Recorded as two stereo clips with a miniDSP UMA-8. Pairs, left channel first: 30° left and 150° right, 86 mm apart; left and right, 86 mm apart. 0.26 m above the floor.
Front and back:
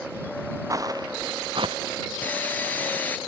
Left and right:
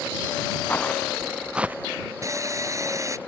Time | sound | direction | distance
0.7 | footsteps | 160° left | ?
2.2 | sawing | 40° right | ?